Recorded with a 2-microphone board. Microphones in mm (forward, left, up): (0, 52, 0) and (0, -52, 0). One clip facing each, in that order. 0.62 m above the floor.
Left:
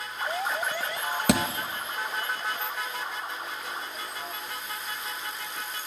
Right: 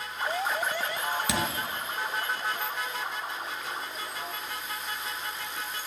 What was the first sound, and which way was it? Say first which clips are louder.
A thud: left 8 dB; 60° left (ahead or behind).